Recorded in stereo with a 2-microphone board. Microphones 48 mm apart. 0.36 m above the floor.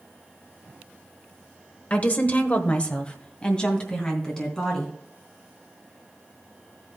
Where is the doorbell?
No doorbell in this recording.